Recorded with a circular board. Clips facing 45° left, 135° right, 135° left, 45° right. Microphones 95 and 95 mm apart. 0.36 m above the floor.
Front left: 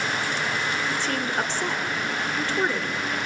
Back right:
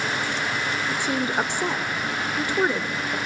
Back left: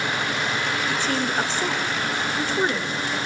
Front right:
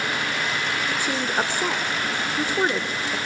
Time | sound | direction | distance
0.9 | a woman speaking | 95° right | 1.2 m